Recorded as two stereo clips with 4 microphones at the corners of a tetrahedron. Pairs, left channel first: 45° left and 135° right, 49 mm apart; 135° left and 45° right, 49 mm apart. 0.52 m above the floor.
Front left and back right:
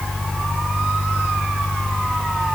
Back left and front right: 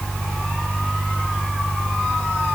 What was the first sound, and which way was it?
Only background noise.